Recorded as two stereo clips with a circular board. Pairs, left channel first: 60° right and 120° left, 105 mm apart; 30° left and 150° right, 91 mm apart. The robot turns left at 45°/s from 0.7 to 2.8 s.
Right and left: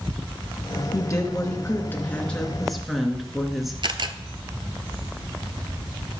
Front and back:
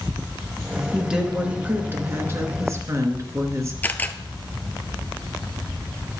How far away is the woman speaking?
About 1.8 m.